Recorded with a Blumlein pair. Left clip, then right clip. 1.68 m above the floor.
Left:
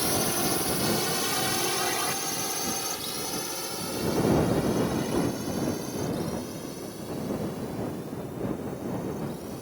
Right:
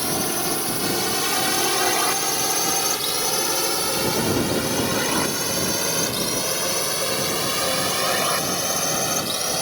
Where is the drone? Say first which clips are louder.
Right 3 dB; 10° right; by 9.6 s 45° right.